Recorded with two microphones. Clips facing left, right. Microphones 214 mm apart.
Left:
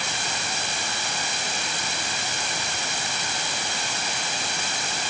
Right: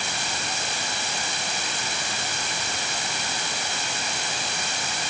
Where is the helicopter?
I don't hear a helicopter.